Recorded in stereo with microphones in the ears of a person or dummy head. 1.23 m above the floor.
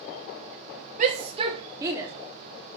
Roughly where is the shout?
Right.